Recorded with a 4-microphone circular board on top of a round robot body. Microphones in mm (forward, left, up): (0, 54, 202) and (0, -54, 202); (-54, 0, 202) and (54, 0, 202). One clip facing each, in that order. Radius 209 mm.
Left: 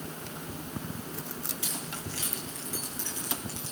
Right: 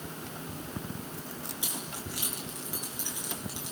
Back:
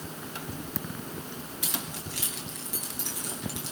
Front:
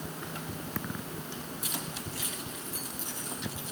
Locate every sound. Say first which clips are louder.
1.6 s keys jangling: left 1 dB, back 1 dB; 165° right, 8 m